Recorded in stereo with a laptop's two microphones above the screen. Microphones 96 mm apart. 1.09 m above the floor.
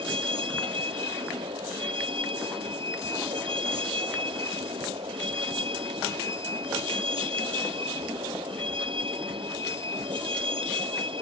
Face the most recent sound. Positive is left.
turn(degrees=-65)  # may be behind; listen again after turning